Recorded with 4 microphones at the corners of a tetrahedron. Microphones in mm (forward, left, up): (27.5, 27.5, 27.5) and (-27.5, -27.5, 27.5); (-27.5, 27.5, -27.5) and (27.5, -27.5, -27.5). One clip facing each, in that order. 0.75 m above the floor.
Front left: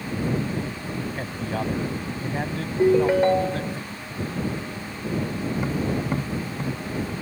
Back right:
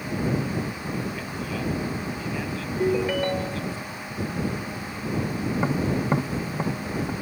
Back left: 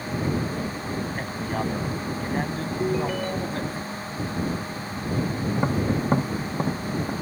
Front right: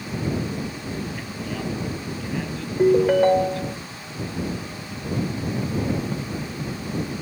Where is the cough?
No cough in this recording.